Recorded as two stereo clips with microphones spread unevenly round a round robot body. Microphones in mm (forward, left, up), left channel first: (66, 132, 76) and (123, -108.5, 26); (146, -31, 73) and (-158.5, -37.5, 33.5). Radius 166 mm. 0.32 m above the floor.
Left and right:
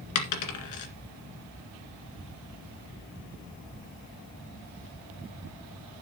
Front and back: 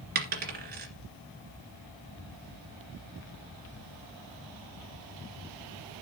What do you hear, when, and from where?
0.1 s a dropped coin: 120° left, 2 m